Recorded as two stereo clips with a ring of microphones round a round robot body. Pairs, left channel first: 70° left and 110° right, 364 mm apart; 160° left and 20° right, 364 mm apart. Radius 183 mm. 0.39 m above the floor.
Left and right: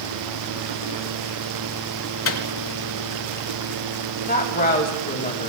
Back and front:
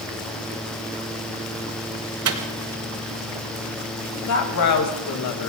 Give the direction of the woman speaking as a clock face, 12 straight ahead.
8 o'clock.